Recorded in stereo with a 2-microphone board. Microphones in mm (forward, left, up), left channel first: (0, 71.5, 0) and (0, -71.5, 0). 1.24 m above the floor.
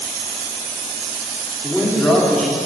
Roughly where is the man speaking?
Centre.